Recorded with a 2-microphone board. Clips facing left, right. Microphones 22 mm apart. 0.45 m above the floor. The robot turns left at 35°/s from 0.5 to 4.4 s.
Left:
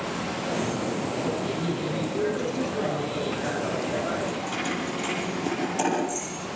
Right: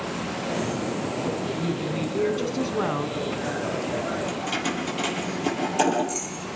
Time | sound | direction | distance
1.6 | a woman speaking | 40° right | 3.5 m
4.3 | keys jangling | 35° right (ahead or behind) | 9.5 m